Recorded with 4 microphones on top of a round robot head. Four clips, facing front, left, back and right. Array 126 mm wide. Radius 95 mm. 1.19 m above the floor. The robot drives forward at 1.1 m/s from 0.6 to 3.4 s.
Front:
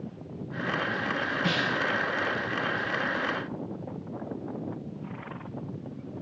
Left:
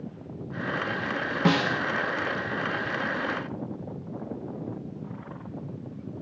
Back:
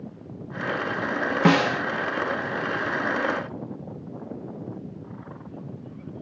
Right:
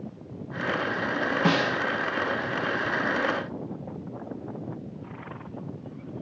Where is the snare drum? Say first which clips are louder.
Left 2 dB, back 11 dB; 175° left.